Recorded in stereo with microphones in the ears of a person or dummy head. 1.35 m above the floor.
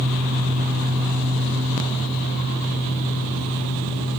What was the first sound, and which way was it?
Only background noise.